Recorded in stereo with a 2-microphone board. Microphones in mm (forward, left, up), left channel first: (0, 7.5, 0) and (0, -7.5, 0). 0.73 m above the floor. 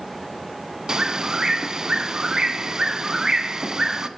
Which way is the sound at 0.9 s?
40° right (ahead or behind).